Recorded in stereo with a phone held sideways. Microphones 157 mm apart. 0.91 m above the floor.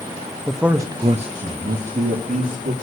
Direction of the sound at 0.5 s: 5° left (ahead or behind).